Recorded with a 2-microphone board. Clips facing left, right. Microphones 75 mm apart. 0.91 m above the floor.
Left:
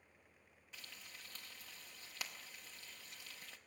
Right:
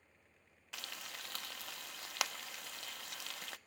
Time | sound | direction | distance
0.7 | frying | 70° right (ahead or behind) | 0.8 m